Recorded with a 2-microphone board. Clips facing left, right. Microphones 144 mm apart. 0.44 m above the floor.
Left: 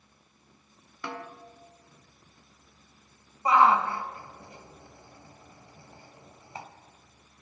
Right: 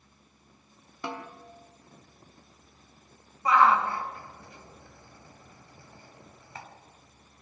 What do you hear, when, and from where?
1.0 s a snare drum: 25° right (ahead or behind), 1.8 m
3.5 s a shout: 20° left (ahead or behind), 3.5 m